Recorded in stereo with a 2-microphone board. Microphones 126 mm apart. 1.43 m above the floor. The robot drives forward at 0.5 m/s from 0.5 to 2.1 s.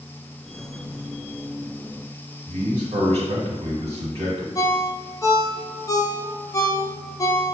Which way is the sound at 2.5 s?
55° right (ahead or behind).